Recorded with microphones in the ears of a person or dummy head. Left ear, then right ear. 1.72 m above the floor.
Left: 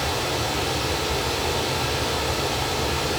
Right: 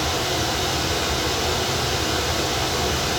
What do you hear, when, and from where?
0.0 s running water: 20° left (ahead or behind), 5 m